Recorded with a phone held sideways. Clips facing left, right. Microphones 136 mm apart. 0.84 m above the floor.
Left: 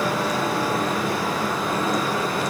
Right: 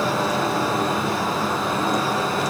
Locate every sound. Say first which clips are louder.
0.0 s a fan: right 1 dB; 25° right (ahead or behind), 4 m